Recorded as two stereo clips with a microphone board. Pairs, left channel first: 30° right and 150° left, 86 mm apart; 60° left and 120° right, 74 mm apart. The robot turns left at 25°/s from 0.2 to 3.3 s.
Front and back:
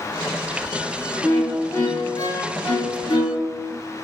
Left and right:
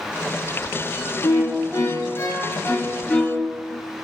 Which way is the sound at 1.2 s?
35° left.